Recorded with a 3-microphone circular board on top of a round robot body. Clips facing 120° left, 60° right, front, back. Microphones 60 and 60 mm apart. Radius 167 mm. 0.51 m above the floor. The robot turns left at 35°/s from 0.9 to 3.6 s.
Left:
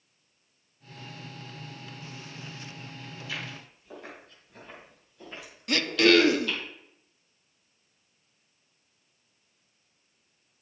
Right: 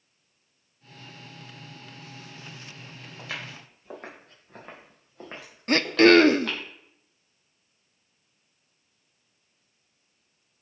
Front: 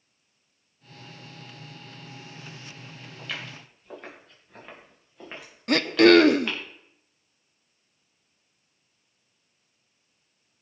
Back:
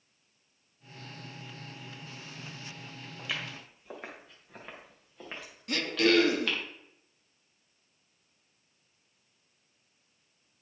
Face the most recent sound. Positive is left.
turn(degrees=-20)